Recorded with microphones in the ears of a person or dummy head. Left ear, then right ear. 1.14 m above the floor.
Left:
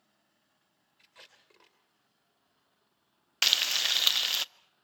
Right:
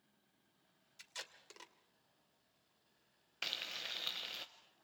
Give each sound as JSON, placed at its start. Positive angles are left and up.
{"t": 1.0, "sound": "tape being pulled", "side_deg": -75, "distance_m": 2.5}
{"t": 3.4, "sound": "frying", "side_deg": 45, "distance_m": 0.5}